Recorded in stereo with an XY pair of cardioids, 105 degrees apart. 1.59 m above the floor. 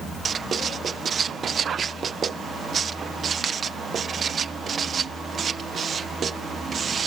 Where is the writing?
50° right.